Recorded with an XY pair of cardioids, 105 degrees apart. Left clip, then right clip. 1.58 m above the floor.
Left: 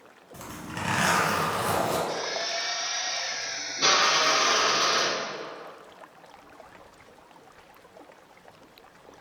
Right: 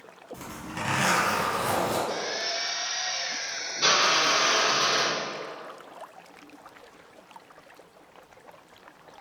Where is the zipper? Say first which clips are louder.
Even; 20° left, 1.5 m.